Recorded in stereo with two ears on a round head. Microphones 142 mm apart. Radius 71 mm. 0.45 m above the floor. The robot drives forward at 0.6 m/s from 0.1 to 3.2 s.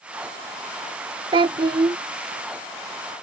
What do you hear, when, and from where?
1.3 s a child speaking: 35° right (ahead or behind); by 2.0 s 30° right (ahead or behind)